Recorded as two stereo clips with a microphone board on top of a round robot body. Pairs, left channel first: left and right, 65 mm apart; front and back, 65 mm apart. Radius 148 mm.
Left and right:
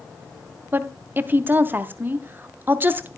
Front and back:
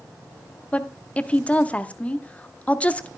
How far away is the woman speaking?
About 1.1 m.